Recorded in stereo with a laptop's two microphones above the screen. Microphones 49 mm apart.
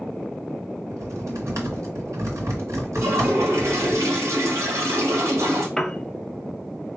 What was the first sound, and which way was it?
Typing on a keyboard, 80° right.